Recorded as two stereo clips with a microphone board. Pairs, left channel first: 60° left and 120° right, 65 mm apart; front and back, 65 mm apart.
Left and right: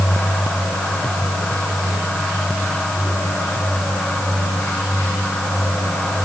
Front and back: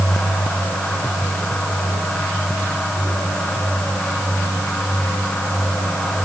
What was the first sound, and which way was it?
Only background noise.